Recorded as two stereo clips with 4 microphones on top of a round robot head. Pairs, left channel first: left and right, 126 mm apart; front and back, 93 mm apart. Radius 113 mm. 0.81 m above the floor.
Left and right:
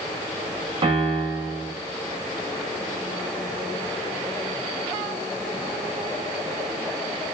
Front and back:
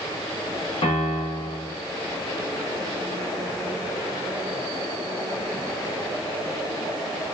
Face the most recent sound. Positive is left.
turn(degrees=-30)